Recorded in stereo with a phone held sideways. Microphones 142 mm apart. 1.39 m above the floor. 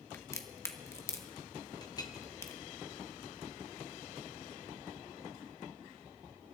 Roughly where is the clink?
Left.